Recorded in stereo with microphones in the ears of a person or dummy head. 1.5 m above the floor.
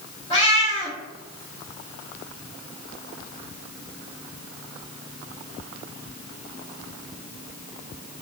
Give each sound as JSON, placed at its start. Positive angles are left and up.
{"t": 0.3, "sound": "a cat meowing", "side_deg": 25, "distance_m": 1.3}